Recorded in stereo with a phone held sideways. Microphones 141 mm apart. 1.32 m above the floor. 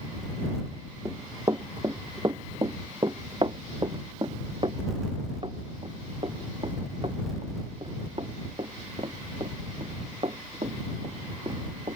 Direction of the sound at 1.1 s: 25° right (ahead or behind).